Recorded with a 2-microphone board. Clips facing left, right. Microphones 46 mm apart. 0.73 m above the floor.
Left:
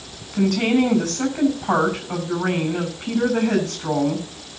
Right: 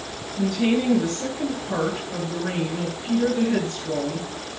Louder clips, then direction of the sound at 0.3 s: Left 3 dB; 70° left (ahead or behind).